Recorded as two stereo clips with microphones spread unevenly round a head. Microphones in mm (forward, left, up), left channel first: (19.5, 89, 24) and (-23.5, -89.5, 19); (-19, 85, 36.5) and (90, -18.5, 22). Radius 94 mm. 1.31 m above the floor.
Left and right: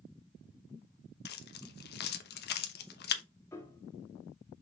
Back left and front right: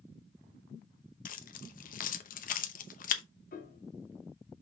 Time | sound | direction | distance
1.2 | keys jangling | 110° left | 0.9 m
3.5 | a piano | 150° left | 1.3 m